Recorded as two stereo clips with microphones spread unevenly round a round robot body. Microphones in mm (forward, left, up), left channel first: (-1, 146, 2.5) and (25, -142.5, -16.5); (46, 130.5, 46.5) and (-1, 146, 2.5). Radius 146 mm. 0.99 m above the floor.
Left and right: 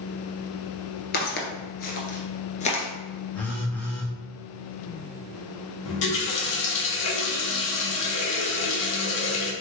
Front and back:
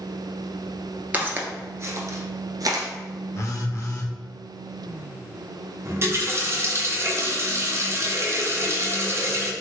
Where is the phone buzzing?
10° left, 1.0 m.